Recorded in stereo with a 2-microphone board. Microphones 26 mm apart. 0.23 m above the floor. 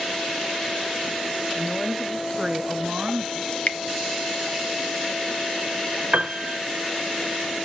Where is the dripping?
45° left (ahead or behind), 1.3 m.